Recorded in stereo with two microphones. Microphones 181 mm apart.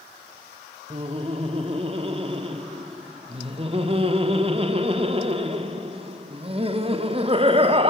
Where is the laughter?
35° right (ahead or behind), 0.7 m.